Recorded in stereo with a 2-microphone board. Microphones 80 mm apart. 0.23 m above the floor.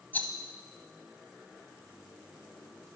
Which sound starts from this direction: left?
A rattle, at 0.1 s.